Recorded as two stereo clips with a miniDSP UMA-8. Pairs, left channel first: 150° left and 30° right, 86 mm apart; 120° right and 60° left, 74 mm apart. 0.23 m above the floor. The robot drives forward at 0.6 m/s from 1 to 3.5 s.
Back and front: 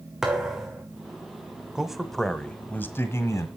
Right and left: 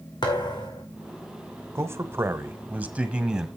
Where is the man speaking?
50° left, 1.2 m; by 3.5 s 135° left, 1.2 m.